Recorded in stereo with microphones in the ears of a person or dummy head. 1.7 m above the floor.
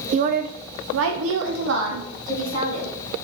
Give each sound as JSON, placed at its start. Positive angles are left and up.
{"t": 0.1, "sound": "a woman speaking", "side_deg": -35, "distance_m": 0.5}